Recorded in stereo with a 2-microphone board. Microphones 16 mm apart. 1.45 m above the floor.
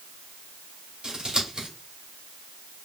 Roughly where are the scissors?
Right.